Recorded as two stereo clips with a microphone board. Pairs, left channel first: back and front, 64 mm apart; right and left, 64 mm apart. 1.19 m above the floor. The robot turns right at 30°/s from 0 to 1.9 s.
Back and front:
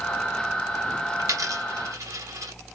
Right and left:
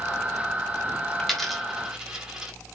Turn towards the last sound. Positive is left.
turn(degrees=15)